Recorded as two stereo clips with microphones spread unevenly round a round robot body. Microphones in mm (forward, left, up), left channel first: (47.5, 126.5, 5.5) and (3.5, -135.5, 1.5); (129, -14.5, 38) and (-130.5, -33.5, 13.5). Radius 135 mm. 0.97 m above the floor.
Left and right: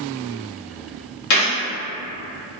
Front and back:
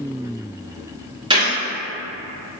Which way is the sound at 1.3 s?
110° left.